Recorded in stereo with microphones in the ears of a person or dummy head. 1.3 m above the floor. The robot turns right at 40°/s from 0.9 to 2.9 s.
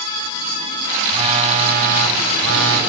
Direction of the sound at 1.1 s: 160° right.